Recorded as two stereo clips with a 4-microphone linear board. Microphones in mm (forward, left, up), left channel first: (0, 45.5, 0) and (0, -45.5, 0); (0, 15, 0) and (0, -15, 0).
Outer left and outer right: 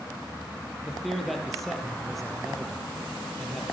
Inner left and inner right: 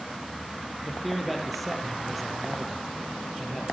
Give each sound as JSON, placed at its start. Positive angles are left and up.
{"t": 0.8, "sound": "a man speaking", "side_deg": 0, "distance_m": 4.0}